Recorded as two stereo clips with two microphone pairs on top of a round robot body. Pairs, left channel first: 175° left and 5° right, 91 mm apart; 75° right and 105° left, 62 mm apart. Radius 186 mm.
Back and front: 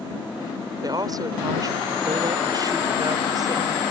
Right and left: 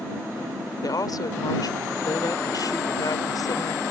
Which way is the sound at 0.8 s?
50° right.